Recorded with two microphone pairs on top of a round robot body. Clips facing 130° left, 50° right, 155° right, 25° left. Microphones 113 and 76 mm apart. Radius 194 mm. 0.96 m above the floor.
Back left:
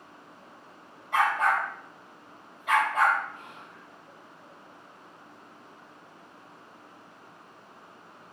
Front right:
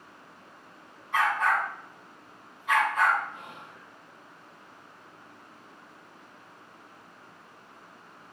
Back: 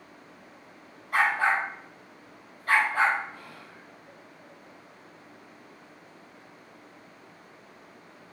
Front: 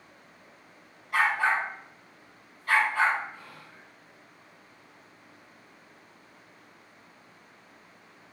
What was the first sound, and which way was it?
A dog barking, 155° left.